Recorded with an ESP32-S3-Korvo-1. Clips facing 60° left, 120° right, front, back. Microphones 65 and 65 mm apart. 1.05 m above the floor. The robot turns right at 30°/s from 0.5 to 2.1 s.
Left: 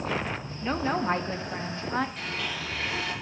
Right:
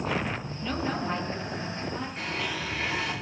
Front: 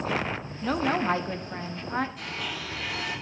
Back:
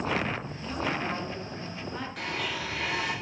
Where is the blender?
Straight behind, 5 m.